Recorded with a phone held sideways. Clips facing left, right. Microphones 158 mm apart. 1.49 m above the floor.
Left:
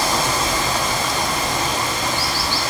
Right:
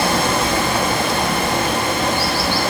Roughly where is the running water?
Right.